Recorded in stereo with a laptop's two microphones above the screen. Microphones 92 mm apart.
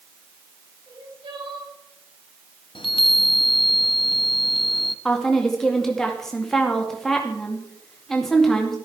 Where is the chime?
65° left (ahead or behind), 0.7 m.